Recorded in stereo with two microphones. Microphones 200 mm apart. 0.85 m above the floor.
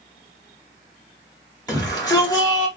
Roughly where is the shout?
Left.